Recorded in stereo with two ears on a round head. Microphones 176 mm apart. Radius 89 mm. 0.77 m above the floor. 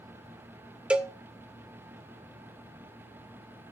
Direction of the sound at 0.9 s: 5° right (ahead or behind).